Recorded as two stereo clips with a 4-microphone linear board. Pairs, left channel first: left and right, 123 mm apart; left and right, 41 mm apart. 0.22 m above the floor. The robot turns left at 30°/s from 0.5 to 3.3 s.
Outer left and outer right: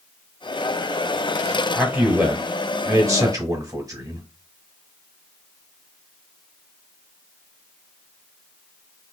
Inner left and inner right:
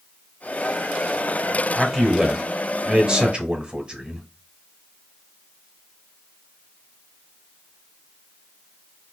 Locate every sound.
1.8 s a man speaking: 20° right, 1.1 m; by 4.3 s 65° right, 1.1 m